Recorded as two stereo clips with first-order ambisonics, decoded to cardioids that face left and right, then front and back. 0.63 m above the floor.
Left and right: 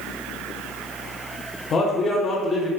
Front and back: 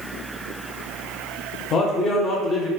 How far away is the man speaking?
About 0.7 m.